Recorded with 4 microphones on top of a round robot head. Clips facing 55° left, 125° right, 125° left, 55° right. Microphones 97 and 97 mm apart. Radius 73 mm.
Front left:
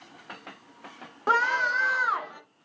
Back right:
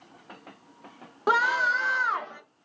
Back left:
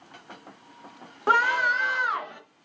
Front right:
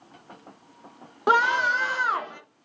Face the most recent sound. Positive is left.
turn(degrees=-20)